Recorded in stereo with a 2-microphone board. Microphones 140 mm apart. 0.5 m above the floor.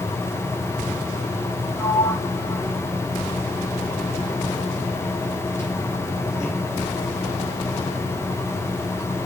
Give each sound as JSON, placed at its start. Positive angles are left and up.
{"t": 1.8, "sound": "a sliding door", "side_deg": 20, "distance_m": 5.5}